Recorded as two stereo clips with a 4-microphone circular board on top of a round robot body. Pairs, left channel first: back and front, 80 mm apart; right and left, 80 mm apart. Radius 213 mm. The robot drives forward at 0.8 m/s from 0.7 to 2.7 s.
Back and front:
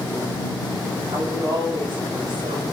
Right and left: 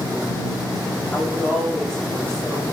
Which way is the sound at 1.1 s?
5° right.